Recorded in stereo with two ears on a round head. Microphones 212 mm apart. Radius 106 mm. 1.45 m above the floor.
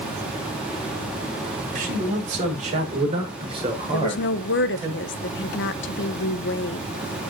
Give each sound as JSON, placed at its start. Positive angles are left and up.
{"t": 1.8, "sound": "a man speaking", "side_deg": -35, "distance_m": 5.5}
{"t": 3.9, "sound": "a woman speaking", "side_deg": 55, "distance_m": 1.0}